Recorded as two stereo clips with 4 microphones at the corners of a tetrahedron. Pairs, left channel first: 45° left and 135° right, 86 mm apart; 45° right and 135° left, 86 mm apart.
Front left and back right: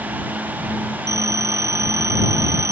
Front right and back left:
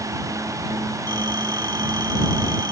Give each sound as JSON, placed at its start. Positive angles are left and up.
{"t": 1.1, "sound": "a phone ringing", "azimuth_deg": 175}